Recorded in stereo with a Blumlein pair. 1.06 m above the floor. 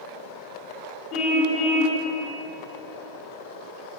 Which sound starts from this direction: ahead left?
A car horn, at 1.1 s.